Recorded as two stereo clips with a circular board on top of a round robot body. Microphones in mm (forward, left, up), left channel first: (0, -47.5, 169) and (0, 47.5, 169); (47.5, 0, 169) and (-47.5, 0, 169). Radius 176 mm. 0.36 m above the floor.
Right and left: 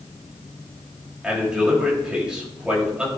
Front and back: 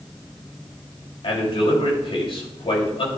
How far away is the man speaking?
About 3.5 m.